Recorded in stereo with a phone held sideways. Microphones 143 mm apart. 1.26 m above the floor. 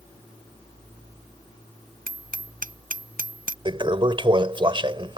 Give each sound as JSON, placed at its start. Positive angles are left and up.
{"t": 2.1, "sound": "hammering", "side_deg": -80}
{"t": 3.6, "sound": "a toilet flushing", "side_deg": -35}